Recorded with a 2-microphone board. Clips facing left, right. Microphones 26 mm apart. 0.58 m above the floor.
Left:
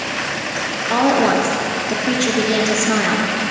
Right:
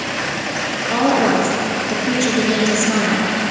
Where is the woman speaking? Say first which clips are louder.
Left 1 dB; 20° left (ahead or behind), 0.7 m.